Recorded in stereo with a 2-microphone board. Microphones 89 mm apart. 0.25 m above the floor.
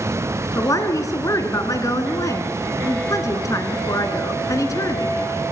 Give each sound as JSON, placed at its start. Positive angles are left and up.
{"t": 0.6, "sound": "a woman speaking", "side_deg": 40, "distance_m": 2.5}